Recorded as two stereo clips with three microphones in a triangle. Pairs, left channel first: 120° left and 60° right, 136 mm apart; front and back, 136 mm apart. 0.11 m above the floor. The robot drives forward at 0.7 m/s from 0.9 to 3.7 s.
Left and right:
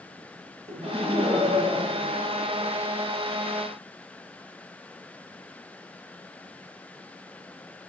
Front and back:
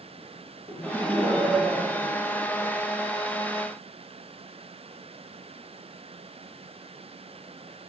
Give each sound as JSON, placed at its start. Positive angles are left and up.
{"t": 0.7, "sound": "laughter", "azimuth_deg": -75, "distance_m": 2.0}